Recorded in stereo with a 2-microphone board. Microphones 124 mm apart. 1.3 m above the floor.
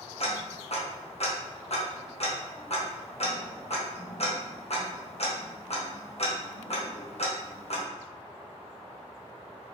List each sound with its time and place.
0.2 s ticking: 55° left (ahead or behind), 0.7 m